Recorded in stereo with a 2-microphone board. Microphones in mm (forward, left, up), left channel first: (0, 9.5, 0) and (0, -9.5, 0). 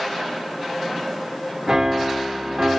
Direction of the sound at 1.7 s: 35° right (ahead or behind).